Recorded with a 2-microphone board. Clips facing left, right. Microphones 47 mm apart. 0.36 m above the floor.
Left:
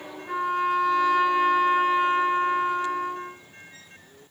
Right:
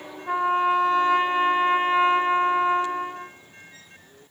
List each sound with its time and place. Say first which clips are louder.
0.3 s a trumpet: right 3 dB; 40° right (ahead or behind), 1.0 m